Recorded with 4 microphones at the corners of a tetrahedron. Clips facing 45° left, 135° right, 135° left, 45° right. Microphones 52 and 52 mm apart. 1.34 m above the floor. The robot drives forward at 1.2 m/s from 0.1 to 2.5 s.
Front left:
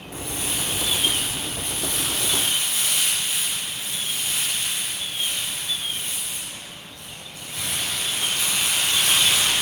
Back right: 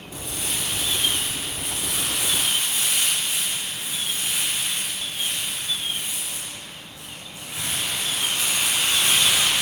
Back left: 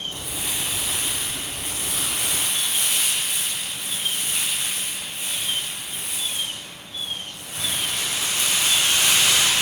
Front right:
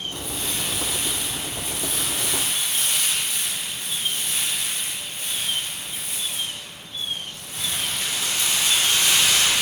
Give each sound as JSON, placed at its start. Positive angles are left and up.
{"t": 0.1, "sound": "crumpling", "azimuth_deg": 50, "distance_m": 1.6}